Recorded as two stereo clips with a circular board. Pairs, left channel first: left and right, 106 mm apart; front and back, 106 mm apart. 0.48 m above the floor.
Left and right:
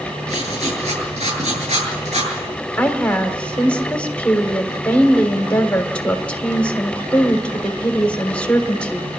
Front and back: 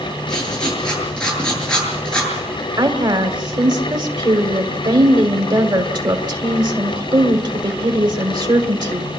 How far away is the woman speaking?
About 1.7 m.